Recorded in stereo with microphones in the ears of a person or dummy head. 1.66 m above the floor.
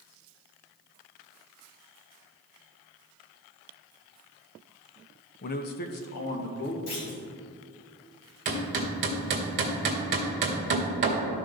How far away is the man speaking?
About 0.6 m.